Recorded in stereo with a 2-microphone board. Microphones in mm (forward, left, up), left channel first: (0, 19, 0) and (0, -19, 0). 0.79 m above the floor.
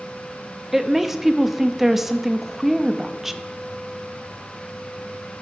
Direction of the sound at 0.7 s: 10° right (ahead or behind).